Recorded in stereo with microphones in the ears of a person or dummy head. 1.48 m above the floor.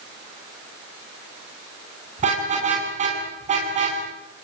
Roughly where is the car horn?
Right.